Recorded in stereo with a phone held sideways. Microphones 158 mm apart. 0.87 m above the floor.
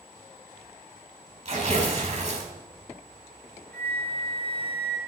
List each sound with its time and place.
1.4 s tearing paper: 45° right (ahead or behind), 4 m
3.7 s a flute: 10° left (ahead or behind), 3.5 m